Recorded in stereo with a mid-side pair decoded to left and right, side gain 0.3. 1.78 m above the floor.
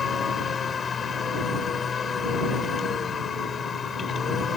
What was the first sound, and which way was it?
A machine running, 55° left.